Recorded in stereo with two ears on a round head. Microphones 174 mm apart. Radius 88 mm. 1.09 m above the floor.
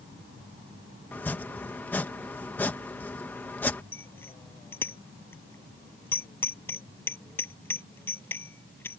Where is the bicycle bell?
10° left (ahead or behind).